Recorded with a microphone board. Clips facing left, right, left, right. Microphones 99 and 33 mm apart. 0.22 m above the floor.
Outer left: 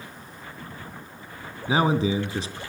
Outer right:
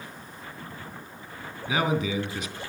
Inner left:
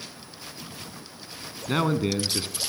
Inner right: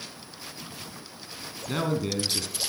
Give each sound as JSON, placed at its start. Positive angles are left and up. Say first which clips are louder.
{"t": 1.7, "sound": "a man speaking", "louder": "outer left 4 dB, inner left 4 dB", "side_deg": 30, "distance_m": 2.5}